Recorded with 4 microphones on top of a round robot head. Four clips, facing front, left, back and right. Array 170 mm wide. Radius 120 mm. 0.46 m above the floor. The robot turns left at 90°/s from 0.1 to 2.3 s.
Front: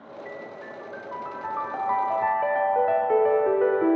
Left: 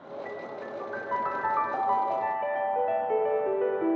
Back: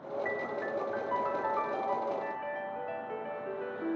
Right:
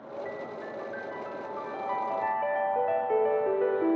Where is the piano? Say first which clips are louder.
Left 1 dB, back 1 dB; 170° right, 0.7 m; by 4.0 s 5° left, 0.7 m.